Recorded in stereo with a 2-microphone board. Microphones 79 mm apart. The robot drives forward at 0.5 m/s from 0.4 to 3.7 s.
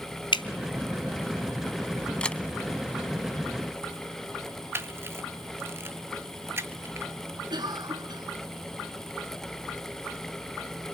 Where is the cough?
65° right (ahead or behind), 2.5 m.